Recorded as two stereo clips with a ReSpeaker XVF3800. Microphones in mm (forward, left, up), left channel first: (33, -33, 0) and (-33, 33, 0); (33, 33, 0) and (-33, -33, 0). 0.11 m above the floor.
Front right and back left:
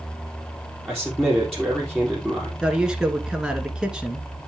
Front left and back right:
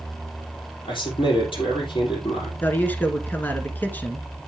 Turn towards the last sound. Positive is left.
turn(degrees=70)